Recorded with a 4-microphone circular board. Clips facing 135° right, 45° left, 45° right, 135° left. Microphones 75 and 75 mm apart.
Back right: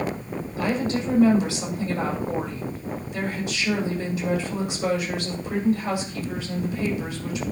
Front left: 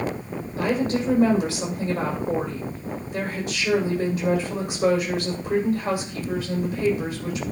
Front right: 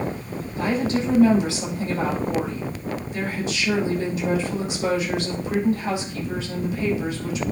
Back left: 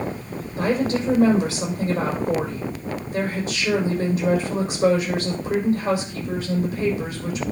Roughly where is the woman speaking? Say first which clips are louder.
Front left 2 dB, back left 1 dB; left.